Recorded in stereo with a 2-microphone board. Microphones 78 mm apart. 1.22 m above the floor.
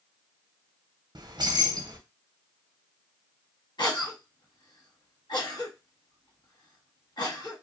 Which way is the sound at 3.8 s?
70° left (ahead or behind).